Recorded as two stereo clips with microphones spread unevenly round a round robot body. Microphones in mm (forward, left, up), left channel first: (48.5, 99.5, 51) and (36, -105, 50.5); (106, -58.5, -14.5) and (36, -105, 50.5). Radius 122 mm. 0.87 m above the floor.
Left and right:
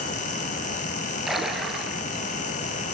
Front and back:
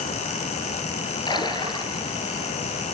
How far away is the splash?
About 4.5 m.